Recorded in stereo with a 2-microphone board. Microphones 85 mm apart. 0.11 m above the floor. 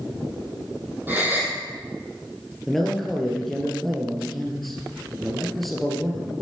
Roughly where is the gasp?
Right.